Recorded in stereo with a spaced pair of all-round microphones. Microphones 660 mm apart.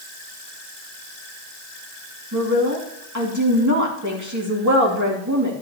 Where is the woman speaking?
25° right (ahead or behind), 3 m.